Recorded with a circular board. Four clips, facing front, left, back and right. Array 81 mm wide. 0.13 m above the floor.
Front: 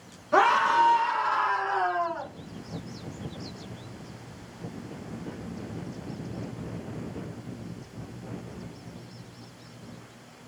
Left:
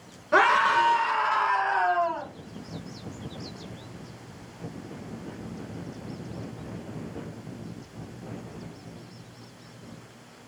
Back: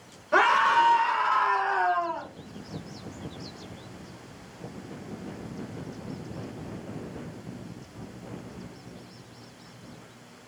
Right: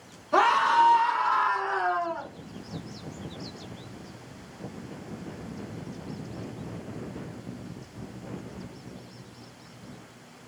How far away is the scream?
About 1.8 m.